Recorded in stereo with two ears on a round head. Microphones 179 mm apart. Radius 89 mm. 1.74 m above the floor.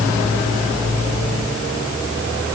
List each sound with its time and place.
Only background noise.